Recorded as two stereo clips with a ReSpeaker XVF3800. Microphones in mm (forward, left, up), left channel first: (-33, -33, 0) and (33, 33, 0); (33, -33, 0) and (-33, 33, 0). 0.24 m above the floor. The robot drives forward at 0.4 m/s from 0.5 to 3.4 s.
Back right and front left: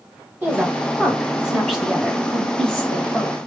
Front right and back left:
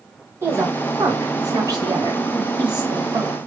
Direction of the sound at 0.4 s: 100° left.